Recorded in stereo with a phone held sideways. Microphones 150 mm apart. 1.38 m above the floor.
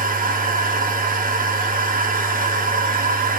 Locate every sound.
0.0 s a machine running: 65° right (ahead or behind), 0.8 m